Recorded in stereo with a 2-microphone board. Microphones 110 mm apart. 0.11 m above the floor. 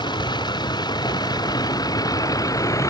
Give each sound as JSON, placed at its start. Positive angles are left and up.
{"t": 0.0, "sound": "a vehicle", "side_deg": 40}